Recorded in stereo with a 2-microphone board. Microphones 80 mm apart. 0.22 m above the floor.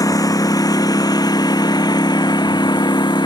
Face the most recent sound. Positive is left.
turn(degrees=65)  # may be behind; listen again after turning